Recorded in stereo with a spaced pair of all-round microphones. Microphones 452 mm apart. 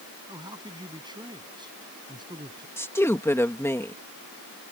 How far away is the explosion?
I don't hear an explosion.